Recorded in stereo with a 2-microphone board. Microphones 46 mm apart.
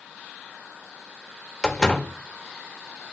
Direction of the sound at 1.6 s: 15° left (ahead or behind).